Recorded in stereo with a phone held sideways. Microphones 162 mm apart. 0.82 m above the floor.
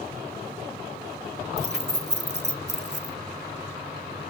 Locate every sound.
1.6 s keys jangling: 80° right, 0.8 m